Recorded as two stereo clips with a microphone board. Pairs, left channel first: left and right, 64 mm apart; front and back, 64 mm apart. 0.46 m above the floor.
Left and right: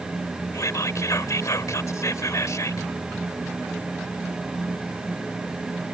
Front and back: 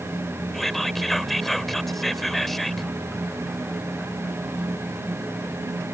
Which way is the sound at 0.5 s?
85° left.